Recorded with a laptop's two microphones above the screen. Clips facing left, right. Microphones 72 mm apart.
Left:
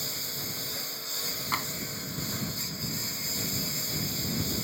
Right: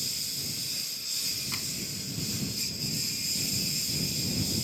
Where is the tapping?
55° left (ahead or behind).